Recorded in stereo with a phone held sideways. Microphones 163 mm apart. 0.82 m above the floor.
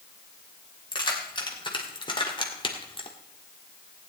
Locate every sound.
0.9 s keys jangling: 30° left (ahead or behind), 3 m; by 3.1 s 35° left (ahead or behind), 1.6 m